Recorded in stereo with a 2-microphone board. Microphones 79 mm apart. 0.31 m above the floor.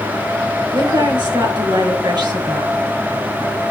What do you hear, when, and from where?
0.7 s a woman speaking: 65° right (ahead or behind), 5.5 m